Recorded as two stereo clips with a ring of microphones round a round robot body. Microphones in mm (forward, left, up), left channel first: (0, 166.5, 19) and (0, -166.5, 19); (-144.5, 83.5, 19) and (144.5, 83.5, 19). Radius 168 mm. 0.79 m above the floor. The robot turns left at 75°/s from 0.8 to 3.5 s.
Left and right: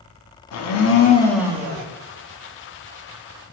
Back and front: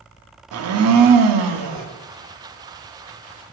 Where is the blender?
40° left, 0.6 m; by 1.9 s 35° right, 0.6 m.